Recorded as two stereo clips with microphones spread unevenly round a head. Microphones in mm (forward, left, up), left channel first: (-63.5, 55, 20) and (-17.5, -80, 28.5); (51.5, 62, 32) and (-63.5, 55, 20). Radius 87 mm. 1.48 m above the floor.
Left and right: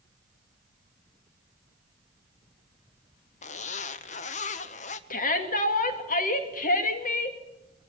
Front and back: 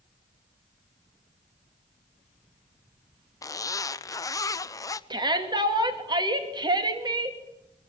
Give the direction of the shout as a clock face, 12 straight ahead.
8 o'clock.